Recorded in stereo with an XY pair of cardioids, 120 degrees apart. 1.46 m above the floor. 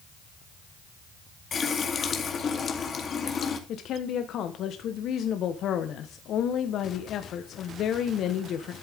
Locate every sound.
1.5 s a running tap: 40° left, 2.0 m
3.7 s a woman speaking: 60° left, 1.1 m